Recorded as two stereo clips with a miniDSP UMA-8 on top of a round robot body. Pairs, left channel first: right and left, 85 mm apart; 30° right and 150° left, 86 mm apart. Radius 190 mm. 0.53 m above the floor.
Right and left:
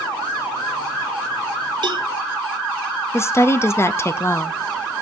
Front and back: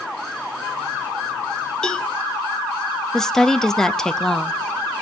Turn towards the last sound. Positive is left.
turn(degrees=-105)